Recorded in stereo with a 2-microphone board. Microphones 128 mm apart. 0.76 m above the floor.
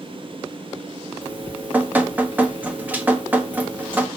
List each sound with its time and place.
1.2 s dripping: 15° right (ahead or behind), 1.0 m